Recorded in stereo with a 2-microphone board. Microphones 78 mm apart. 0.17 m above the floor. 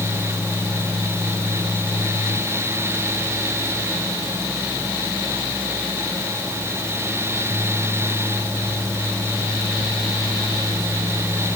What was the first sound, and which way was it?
Only background noise.